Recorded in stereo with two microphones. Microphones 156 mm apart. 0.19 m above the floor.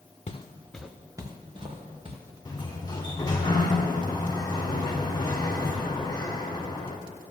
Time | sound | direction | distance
0.3 | footsteps | 45° left (ahead or behind) | 0.9 m
2.5 | a sliding door | 25° left (ahead or behind) | 1.2 m